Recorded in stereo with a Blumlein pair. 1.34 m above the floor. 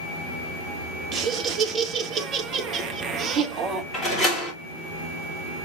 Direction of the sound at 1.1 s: 25° right.